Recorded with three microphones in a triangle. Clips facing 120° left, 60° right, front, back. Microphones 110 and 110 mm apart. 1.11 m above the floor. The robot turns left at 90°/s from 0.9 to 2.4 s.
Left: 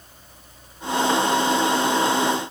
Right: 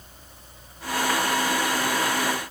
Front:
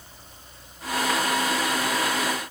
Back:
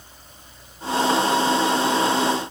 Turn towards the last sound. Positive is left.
No sound to turn to.